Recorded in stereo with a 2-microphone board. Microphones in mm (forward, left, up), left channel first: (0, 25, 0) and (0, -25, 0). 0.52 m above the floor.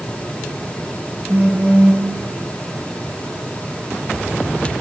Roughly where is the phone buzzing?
Right.